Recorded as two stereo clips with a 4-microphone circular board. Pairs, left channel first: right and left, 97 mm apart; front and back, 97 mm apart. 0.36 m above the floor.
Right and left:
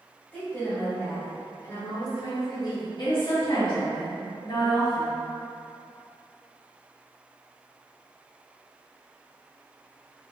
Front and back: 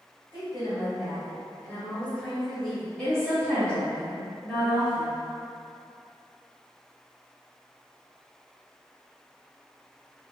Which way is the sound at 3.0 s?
85° right.